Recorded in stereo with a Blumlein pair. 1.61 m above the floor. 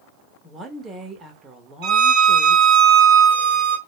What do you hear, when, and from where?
0.4 s a woman speaking: 15° right, 0.9 m
1.8 s a violin: 45° right, 1.1 m